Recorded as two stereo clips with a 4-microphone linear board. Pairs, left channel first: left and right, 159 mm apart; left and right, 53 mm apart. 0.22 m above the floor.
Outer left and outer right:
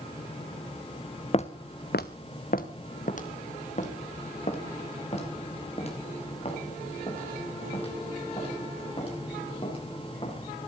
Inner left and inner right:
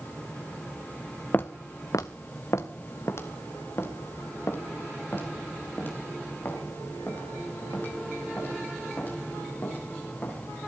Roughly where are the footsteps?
Left.